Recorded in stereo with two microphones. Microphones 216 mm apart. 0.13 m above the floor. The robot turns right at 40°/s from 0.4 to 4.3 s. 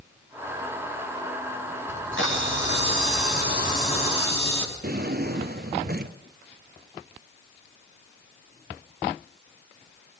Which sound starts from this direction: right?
A drawer, at 4.8 s.